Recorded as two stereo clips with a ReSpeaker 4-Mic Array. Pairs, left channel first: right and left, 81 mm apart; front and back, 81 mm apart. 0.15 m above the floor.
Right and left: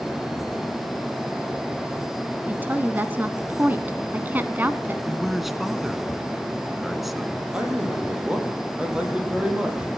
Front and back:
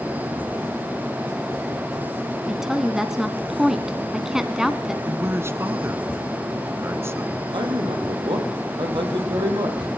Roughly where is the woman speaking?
Left.